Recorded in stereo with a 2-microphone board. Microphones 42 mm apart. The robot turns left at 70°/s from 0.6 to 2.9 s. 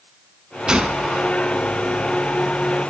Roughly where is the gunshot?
Centre.